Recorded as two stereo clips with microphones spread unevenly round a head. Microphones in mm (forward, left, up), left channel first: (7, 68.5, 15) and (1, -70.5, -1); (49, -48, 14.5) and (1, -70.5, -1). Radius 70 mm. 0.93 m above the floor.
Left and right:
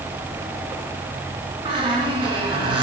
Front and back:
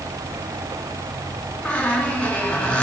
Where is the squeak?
35° right, 2.5 m.